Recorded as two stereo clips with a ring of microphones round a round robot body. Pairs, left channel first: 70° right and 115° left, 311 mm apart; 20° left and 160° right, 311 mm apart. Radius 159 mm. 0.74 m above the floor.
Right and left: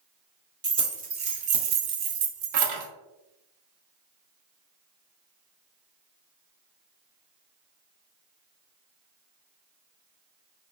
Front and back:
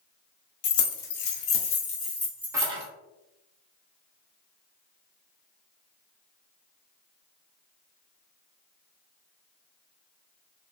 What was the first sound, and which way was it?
Keys jangling, 35° left.